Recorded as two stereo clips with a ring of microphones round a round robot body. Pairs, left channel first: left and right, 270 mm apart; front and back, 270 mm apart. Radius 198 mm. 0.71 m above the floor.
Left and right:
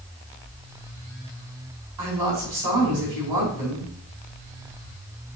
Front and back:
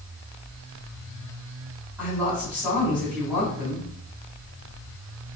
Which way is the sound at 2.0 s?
95° right.